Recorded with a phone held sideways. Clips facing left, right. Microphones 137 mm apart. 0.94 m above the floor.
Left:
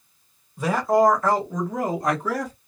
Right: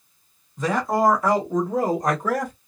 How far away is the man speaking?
About 1.2 m.